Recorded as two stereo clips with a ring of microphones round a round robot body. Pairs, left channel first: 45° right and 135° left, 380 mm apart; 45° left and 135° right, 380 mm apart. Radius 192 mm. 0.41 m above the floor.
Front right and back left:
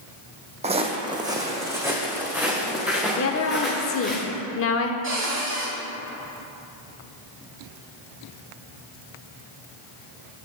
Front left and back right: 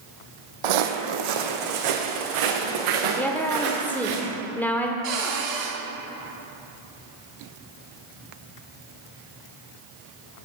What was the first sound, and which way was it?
Footsteps, 150° right.